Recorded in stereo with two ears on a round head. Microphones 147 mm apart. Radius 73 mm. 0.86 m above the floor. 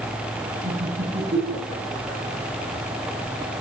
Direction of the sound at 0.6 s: 50° right (ahead or behind).